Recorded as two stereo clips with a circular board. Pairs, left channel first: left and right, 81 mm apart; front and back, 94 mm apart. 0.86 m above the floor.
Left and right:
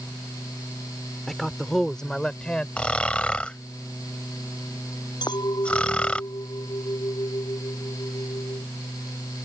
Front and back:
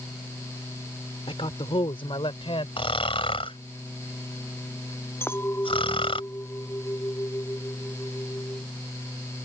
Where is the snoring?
15° left.